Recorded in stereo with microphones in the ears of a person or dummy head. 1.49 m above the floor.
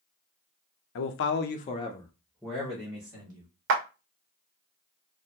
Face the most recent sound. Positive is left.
turn(degrees=-65)  # may be behind; listen again after turning